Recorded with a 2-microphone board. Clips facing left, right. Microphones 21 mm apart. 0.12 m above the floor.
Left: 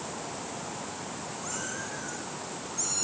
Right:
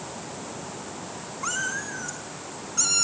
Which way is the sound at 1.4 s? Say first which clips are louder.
Right 10 dB; 50° right (ahead or behind).